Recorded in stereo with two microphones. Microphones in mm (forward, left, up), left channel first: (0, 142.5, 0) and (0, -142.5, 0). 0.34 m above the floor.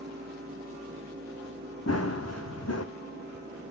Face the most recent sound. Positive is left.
turn(degrees=60)  # may be behind; listen again after turning